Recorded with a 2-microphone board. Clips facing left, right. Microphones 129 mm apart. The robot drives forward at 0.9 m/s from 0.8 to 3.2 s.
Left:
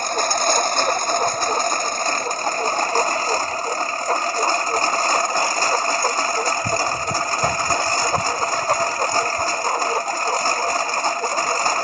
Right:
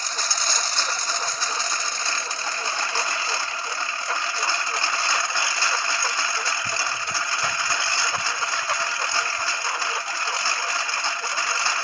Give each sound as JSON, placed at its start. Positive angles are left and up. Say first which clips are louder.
{"t": 0.0, "sound": "a lawn mower", "louder": "left 10 dB", "side_deg": 50}